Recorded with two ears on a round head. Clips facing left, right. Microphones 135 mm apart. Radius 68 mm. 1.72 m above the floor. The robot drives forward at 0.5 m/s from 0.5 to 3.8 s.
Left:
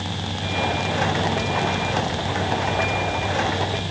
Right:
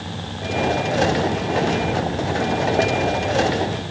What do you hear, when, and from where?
Only background noise.